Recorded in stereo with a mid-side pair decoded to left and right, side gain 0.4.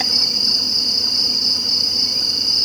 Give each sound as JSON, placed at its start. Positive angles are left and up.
{"t": 0.0, "sound": "an insect", "azimuth_deg": 0}